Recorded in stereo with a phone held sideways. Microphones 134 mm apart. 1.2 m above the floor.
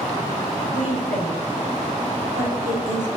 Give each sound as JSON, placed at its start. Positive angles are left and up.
{"t": 0.7, "sound": "a woman speaking", "side_deg": -80, "distance_m": 4.0}